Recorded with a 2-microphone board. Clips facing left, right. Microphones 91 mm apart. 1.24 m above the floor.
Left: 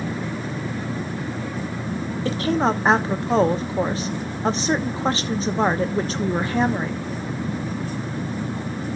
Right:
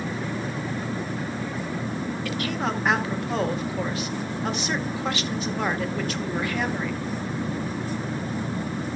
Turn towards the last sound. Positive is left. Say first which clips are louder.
# left 9 dB
turn(degrees=30)  # may be behind; listen again after turning